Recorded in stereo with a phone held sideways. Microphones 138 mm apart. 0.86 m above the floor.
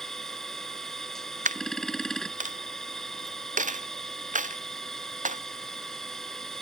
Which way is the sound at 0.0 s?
5° left (ahead or behind).